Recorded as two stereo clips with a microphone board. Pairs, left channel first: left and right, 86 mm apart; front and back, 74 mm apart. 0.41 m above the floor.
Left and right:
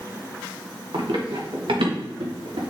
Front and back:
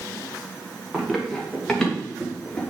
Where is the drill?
No drill in this recording.